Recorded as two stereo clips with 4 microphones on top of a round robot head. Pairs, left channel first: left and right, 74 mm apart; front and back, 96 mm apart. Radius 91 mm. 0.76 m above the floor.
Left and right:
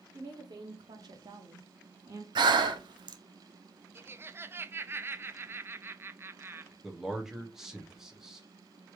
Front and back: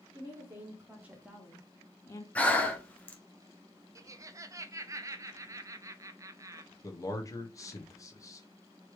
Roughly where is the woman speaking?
Behind right.